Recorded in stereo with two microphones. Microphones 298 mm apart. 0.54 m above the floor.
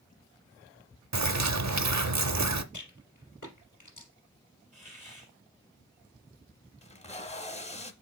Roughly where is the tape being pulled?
Left.